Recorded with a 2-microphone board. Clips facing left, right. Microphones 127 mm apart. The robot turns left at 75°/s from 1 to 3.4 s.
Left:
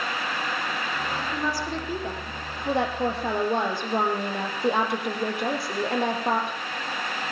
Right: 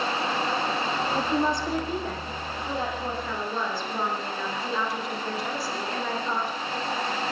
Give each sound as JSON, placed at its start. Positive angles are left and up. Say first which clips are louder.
{"t": 1.1, "sound": "a woman speaking", "louder": "right 5 dB", "azimuth_deg": -125, "distance_m": 6.0}